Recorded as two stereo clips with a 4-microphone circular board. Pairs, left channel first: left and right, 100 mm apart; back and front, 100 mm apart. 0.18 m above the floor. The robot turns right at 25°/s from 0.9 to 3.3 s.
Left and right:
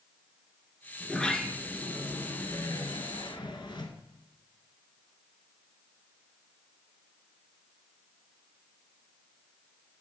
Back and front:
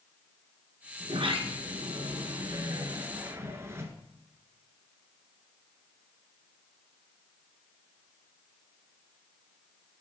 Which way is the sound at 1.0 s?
5° left.